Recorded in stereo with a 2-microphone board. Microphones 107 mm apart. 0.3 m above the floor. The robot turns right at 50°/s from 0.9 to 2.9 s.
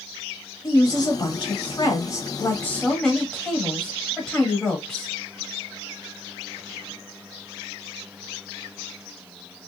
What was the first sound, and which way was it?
A woman speaking, 70° left.